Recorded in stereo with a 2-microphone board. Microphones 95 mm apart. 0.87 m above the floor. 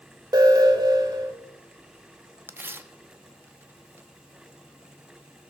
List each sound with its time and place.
0.3 s an alarm: 45° right (ahead or behind), 2.5 m
2.5 s tearing paper: 25° right (ahead or behind), 0.9 m